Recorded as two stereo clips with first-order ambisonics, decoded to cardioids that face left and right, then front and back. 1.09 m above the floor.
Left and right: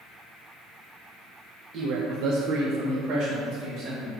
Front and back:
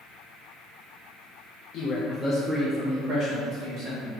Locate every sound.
1.7 s a man speaking: 45° right, 0.5 m; by 4.1 s 145° right, 1.4 m